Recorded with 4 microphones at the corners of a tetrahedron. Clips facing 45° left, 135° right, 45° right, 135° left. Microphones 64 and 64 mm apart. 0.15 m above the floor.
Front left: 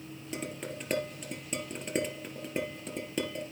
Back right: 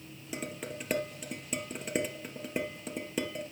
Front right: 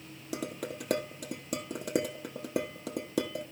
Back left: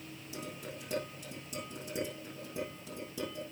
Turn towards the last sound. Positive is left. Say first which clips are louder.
# even, front right 8 dB
turn(degrees=-50)